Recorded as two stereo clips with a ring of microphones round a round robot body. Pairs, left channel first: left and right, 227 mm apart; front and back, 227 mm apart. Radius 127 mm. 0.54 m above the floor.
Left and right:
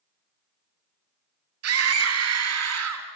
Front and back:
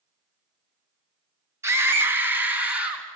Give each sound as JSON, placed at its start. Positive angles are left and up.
{"t": 1.6, "sound": "a scream", "azimuth_deg": -100, "distance_m": 4.0}